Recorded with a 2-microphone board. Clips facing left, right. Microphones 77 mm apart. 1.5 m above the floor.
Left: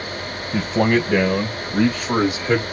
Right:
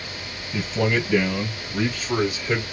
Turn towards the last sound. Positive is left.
turn(degrees=80)